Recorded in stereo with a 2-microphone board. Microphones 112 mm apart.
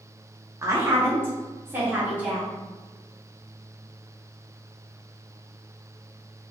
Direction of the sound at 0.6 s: 25° right (ahead or behind).